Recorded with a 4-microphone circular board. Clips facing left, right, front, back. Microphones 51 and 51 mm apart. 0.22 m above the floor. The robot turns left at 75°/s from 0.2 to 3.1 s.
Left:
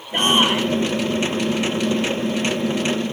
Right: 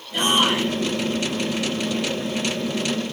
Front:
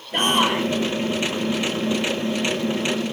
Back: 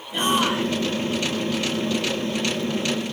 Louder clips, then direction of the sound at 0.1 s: Left 2 dB, front 2 dB; 45° left.